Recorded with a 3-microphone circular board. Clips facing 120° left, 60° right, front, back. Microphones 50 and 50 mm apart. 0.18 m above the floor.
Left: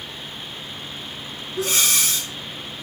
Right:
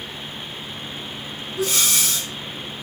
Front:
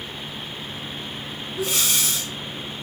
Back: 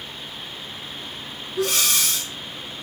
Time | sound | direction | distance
1.6 | breathing | 160° left | 3.5 m